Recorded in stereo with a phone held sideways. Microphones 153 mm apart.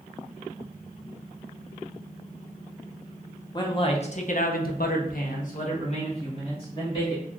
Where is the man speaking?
30° left (ahead or behind), 0.8 m.